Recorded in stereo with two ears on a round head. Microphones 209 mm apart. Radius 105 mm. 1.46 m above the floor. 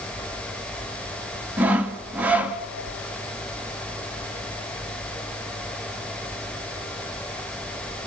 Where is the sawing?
5° right (ahead or behind), 0.9 m.